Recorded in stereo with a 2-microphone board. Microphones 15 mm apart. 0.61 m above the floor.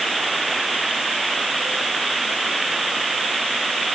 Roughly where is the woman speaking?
I don't hear a woman speaking.